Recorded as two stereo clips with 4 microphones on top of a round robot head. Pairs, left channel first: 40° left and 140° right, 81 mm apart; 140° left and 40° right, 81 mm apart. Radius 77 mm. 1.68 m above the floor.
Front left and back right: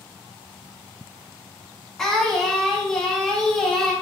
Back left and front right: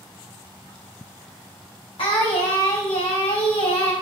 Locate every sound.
2.0 s singing: 120° left, 1.3 m